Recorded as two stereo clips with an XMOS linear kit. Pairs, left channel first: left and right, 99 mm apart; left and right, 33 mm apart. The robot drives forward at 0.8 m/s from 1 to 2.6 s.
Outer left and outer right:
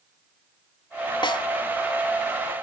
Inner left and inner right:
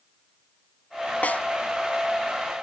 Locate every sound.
1.2 s a snare drum: 55° left (ahead or behind), 0.7 m; by 1.5 s 50° left (ahead or behind), 0.8 m